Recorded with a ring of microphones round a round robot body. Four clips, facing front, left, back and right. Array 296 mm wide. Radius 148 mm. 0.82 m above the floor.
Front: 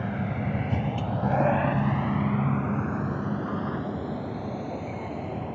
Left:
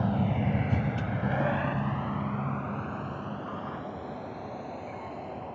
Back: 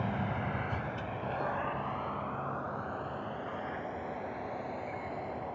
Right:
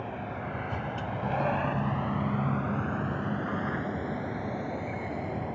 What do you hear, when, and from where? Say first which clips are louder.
0.0 s a vehicle: left 7 dB, front 4 dB; 70° left; by 5.6 s 30° right